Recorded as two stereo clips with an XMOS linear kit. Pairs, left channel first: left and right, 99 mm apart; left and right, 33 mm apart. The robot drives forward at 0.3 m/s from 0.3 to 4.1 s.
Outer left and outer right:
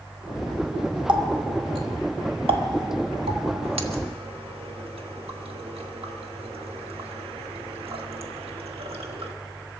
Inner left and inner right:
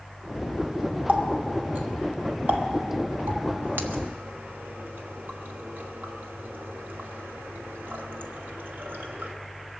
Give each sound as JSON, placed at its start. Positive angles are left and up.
{"t": 1.1, "sound": "a running tap", "side_deg": -50, "distance_m": 1.6}